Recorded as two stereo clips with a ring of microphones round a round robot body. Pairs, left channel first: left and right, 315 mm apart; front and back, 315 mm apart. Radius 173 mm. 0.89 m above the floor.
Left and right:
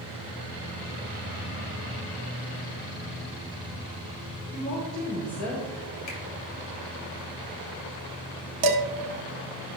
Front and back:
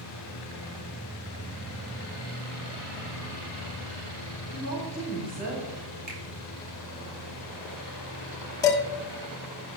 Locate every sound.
4.5 s a woman speaking: 165° left, 4 m; by 6.0 s 155° left, 4.5 m
6.1 s a finger snap: 115° left, 3 m
8.6 s dishes clattering: 80° right, 1.3 m